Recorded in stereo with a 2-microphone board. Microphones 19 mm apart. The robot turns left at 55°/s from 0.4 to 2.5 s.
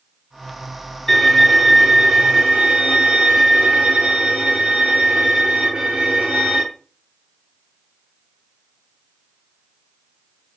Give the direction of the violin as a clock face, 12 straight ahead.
11 o'clock.